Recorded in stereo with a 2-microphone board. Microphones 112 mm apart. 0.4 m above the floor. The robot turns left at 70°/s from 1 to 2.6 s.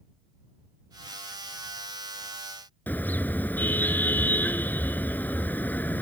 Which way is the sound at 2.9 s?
15° left (ahead or behind).